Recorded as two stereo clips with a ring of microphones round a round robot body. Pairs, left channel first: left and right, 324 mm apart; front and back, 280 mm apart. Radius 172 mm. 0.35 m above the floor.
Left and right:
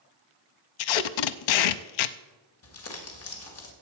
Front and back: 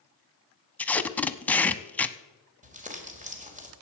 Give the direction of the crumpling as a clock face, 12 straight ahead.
8 o'clock.